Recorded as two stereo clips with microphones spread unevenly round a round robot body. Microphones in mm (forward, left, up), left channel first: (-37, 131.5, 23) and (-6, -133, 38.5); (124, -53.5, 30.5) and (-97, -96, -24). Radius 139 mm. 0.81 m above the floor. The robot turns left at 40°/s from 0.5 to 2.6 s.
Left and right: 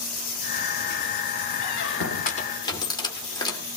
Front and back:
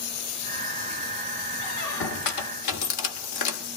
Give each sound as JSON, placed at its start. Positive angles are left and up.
{"t": 1.6, "sound": "a squeak", "azimuth_deg": 60, "distance_m": 1.8}